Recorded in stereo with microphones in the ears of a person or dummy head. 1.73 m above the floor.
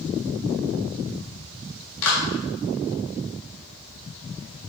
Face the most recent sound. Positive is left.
turn(degrees=75)  # may be behind; listen again after turning